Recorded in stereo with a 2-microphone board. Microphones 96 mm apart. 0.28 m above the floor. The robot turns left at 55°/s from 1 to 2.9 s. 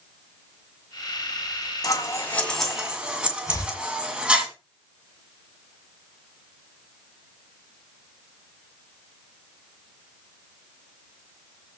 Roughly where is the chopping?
Left.